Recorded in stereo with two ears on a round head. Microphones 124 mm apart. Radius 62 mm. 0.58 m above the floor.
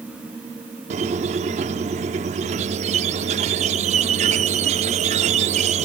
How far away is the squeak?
About 0.6 m.